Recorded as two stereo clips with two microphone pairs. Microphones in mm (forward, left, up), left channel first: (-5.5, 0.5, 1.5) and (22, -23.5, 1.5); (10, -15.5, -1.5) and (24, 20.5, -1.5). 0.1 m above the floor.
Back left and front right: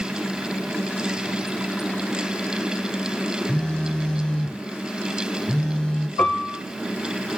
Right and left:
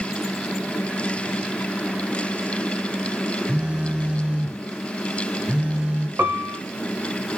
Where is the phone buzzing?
95° left, 0.8 m.